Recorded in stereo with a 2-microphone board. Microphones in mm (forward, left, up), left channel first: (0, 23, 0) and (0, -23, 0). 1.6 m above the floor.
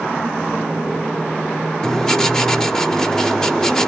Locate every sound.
1.8 s writing: 15° left (ahead or behind), 1.3 m